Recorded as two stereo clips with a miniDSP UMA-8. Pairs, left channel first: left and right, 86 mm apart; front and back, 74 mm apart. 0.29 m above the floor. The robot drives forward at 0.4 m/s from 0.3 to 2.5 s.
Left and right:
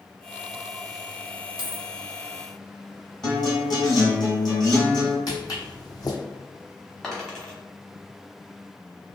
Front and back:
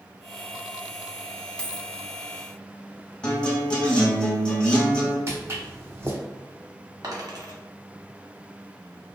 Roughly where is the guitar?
Left.